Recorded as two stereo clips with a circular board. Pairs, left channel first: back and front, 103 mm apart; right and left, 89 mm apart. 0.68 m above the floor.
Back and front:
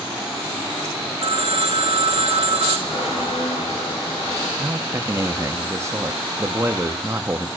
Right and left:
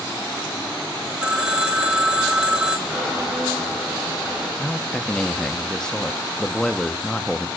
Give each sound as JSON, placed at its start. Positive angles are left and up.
{"t": 1.2, "sound": "a phone ringing", "azimuth_deg": 10, "distance_m": 0.5}
{"t": 2.9, "sound": "a squeak", "azimuth_deg": 180, "distance_m": 4.5}
{"t": 4.6, "sound": "a man speaking", "azimuth_deg": -15, "distance_m": 0.6}